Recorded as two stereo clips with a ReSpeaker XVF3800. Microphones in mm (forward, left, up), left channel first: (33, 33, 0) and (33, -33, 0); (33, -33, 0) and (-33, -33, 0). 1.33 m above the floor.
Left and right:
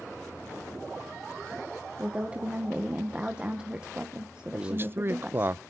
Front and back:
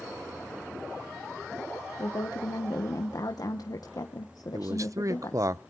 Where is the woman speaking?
15° right, 1.3 m.